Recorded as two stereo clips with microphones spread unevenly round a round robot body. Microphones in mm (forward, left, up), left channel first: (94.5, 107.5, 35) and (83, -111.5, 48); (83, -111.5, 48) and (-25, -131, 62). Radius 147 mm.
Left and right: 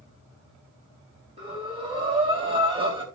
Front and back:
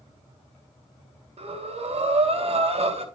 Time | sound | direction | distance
1.4 | breathing | 160° right | 2.5 m